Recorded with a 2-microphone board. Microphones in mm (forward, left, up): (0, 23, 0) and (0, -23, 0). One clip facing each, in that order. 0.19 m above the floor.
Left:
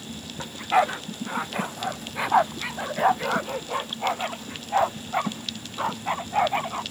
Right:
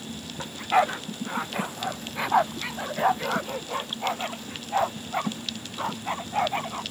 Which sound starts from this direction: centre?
A dog barking, at 0.4 s.